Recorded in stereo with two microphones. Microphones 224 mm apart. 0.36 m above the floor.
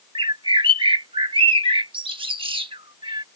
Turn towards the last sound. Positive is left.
turn(degrees=-25)  # may be behind; listen again after turning